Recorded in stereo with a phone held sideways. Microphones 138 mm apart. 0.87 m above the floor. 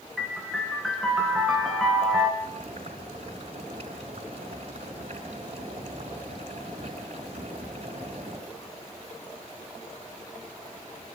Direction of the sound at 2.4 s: 45° right (ahead or behind).